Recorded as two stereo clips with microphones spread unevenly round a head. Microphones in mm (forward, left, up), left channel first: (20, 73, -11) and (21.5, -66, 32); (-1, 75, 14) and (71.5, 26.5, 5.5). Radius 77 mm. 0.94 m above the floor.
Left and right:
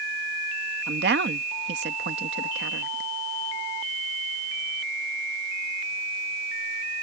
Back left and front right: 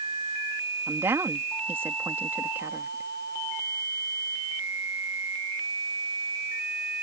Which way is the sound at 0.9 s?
100° right.